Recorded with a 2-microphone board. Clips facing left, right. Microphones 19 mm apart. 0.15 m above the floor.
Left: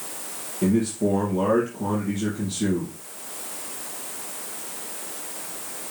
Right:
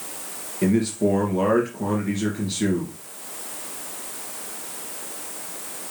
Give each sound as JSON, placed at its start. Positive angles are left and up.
{"t": 0.6, "sound": "a man speaking", "side_deg": -60, "distance_m": 2.5}